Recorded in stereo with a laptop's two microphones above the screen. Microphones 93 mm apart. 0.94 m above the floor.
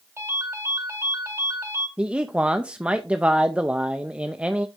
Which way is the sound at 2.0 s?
10° right (ahead or behind).